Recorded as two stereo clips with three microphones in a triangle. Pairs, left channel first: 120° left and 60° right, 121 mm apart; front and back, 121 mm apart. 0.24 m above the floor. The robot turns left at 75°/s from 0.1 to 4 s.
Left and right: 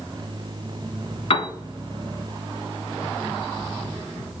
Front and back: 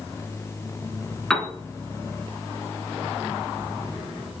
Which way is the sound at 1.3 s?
85° left.